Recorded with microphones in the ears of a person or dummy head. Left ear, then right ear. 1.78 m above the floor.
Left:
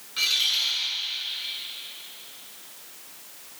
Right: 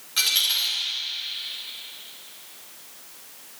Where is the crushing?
No crushing in this recording.